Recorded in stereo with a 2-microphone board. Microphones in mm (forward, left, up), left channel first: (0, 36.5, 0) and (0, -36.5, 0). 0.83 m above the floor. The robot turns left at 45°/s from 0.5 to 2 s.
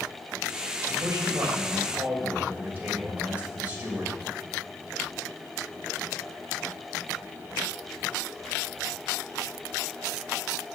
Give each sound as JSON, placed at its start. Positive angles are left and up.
{"t": 0.9, "sound": "a man speaking", "azimuth_deg": -105, "distance_m": 3.0}